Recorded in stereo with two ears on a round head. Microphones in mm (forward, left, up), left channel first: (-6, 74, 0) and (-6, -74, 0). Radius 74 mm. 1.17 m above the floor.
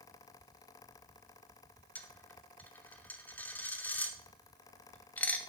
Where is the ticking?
I don't hear ticking.